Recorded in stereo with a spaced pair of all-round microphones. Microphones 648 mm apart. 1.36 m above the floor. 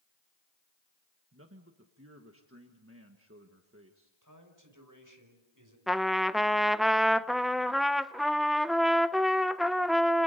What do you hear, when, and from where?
1.3 s a man speaking: 20° right (ahead or behind), 1.5 m
4.2 s a man speaking: 30° right (ahead or behind), 5.5 m
5.9 s a trumpet: centre (ahead or behind), 0.5 m